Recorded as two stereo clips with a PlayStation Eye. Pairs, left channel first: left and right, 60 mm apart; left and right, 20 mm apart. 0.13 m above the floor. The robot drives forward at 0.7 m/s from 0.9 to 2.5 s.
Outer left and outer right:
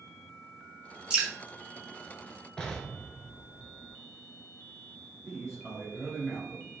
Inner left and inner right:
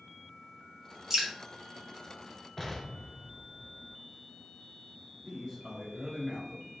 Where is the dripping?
20° right (ahead or behind), 1.0 m.